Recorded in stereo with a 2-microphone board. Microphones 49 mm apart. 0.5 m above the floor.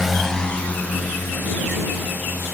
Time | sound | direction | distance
0.0 | a drone | 10° right (ahead or behind) | ?